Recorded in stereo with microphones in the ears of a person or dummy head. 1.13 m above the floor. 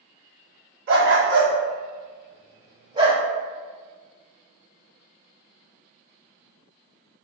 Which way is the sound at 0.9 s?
55° right (ahead or behind).